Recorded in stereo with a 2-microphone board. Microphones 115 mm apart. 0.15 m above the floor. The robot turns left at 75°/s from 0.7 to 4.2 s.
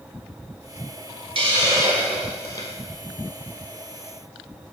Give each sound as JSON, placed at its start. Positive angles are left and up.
{"t": 1.4, "sound": "a hiss", "azimuth_deg": -120, "distance_m": 1.6}